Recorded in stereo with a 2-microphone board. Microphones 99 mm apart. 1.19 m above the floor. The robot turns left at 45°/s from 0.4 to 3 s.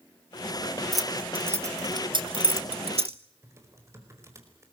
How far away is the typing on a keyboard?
About 4.5 m.